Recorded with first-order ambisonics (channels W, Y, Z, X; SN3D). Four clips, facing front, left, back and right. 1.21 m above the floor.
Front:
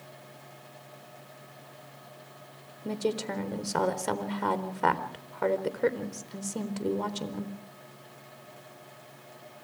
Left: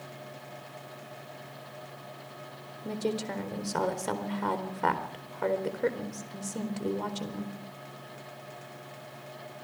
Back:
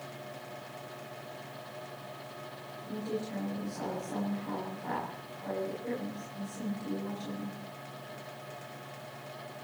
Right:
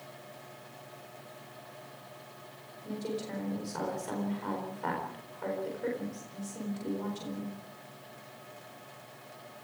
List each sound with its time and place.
2.9 s a woman speaking: 30° left, 4 m